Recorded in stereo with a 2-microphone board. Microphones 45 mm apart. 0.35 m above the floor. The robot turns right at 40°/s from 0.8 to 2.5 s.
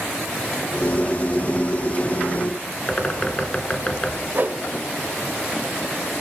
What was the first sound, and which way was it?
A bird, 25° left (ahead or behind).